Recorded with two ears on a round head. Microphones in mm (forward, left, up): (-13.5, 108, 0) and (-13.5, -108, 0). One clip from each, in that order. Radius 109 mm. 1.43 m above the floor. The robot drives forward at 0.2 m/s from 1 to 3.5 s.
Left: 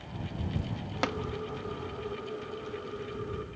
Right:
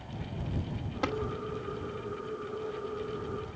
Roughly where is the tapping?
Left.